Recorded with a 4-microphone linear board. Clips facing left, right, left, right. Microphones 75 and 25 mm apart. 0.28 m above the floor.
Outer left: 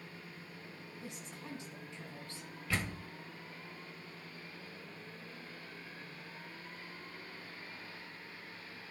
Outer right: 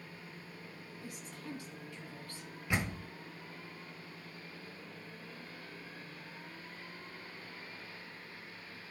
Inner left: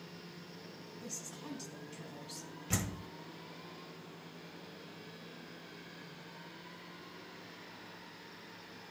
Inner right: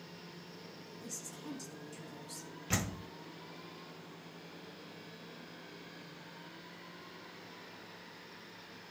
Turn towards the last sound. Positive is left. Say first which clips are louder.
# outer right 2 dB, inner right 2 dB
turn(degrees=-15)  # may be behind; listen again after turning